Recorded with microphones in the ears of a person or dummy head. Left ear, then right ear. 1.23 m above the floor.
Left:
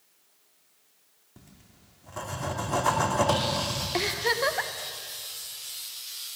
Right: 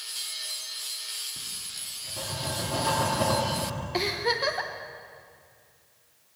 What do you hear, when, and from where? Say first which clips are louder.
1.4 s writing: right 22 dB; 50° left (ahead or behind), 3 m
3.9 s a giggle: even; 15° left (ahead or behind), 1.1 m